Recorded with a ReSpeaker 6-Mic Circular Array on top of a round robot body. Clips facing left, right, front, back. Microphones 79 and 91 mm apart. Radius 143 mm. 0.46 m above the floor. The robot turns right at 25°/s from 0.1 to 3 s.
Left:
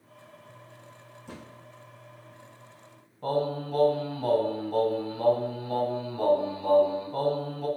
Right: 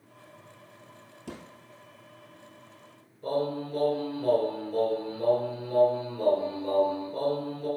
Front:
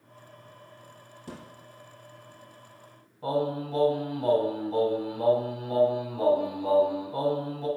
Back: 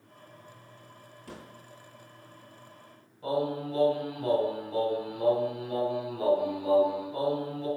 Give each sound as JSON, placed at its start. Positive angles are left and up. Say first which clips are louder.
{"t": 1.3, "sound": "a thud", "louder": "right 3 dB, front 3 dB", "azimuth_deg": -65, "distance_m": 1.4}
{"t": 3.2, "sound": "singing", "louder": "left 1 dB, front 2 dB", "azimuth_deg": 55, "distance_m": 2.0}